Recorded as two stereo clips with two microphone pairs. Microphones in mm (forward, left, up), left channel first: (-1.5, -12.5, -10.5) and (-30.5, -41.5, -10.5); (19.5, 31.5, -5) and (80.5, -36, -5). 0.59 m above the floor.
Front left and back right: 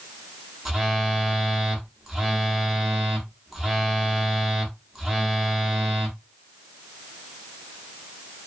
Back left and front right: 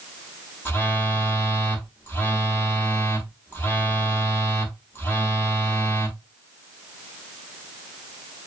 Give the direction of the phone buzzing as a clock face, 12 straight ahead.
7 o'clock.